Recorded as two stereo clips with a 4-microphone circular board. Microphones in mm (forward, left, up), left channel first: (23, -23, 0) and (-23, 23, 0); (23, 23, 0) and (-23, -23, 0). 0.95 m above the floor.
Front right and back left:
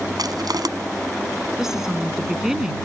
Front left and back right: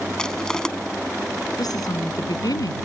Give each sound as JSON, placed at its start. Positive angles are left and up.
{"t": 0.2, "sound": "crushing", "azimuth_deg": 125}
{"t": 1.6, "sound": "a woman speaking", "azimuth_deg": 50}